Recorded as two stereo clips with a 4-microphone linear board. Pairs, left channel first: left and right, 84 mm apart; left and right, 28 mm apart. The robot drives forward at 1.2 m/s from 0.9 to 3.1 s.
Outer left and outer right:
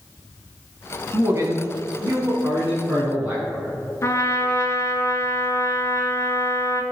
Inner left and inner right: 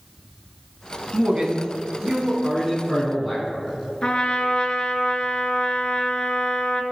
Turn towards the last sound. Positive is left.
turn(degrees=35)  # may be behind; listen again after turning